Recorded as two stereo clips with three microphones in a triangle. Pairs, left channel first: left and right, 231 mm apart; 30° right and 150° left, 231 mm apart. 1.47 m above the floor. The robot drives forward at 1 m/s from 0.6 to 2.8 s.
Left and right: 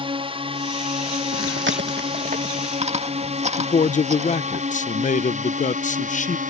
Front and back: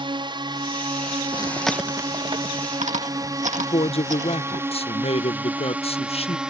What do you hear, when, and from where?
0.0 s a drone: 150° right; by 6.5 s 125° right
1.3 s chewing: 100° right; by 4.6 s 150° right
3.6 s a man speaking: 30° left